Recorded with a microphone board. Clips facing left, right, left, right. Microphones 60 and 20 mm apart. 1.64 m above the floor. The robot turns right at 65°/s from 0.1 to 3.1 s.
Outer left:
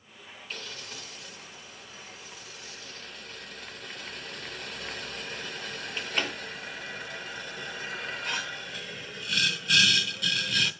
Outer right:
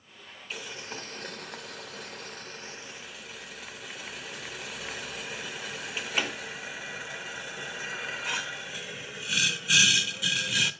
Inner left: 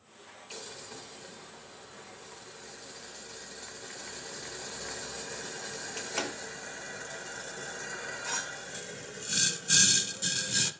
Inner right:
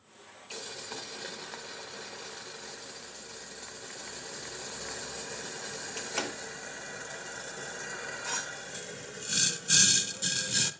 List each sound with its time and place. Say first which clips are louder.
0.5 s boiling: outer right 3 dB, inner right 4 dB; 5° right (ahead or behind), 0.8 m